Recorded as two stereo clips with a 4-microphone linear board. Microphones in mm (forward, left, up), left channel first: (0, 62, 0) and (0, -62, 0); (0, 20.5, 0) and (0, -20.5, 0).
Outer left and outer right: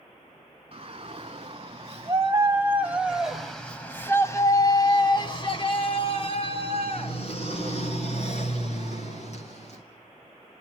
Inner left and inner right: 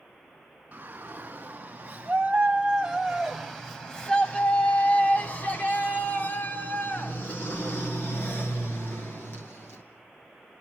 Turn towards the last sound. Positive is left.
turn(degrees=60)  # may be behind; listen again after turning